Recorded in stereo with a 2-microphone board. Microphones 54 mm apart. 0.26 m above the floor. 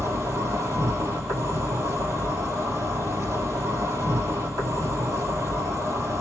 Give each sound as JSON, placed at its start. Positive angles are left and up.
{"t": 0.0, "sound": "an insect", "side_deg": -80, "distance_m": 1.9}